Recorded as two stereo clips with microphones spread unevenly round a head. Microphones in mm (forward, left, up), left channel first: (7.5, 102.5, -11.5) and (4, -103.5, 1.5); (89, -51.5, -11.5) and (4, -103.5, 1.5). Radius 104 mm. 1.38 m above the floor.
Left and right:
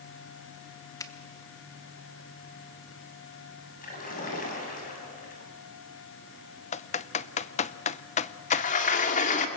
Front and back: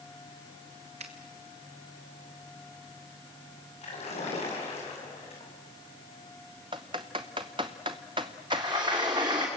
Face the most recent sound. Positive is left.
turn(degrees=145)